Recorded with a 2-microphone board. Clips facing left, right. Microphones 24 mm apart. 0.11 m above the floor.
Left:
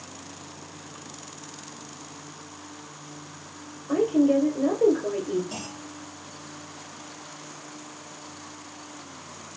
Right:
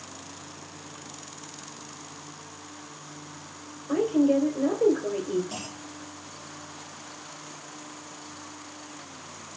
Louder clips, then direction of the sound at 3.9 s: Left 1 dB; centre (ahead or behind).